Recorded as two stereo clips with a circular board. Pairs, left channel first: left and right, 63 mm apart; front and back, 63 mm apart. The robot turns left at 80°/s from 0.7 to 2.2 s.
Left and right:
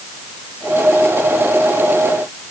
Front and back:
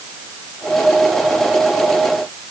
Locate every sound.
Only background noise.